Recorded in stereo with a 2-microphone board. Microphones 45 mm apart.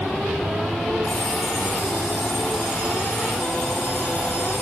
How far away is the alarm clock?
About 2.5 m.